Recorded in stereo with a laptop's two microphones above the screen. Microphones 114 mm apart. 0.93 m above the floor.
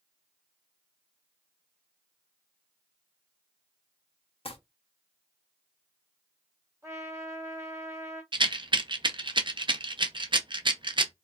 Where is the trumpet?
30° right (ahead or behind), 2.5 m.